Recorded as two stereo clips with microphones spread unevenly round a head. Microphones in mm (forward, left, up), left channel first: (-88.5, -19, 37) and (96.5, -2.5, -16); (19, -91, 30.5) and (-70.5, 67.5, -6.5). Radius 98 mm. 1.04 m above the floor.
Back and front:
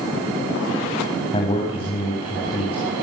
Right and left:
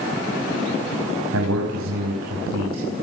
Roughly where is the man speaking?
Behind left.